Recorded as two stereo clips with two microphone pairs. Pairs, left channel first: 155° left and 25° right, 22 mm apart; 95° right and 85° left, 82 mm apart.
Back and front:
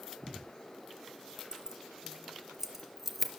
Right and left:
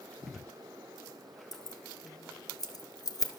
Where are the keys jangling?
70° right, 2 m; by 3.4 s 100° right, 1.6 m.